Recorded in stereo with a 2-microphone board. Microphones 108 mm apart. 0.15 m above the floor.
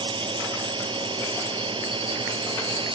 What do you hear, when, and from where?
0.0 s a drone: 50° right (ahead or behind)